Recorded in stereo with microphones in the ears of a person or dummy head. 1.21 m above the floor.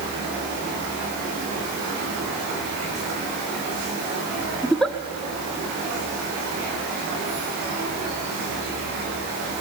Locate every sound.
4.6 s a giggle: 5° left (ahead or behind), 0.7 m